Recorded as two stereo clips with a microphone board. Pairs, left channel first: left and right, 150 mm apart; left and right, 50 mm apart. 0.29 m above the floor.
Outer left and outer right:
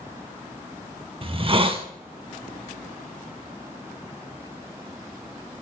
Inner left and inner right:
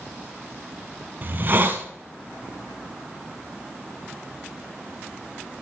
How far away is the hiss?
About 0.6 m.